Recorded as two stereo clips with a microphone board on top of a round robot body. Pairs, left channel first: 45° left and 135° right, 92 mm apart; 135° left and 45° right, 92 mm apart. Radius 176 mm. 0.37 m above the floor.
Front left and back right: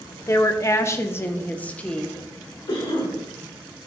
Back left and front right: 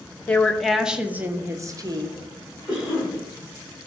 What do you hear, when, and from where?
0.3 s a woman speaking: 70° left, 1.3 m; by 2.2 s 35° right, 1.5 m
2.7 s a cough: 35° left, 5.5 m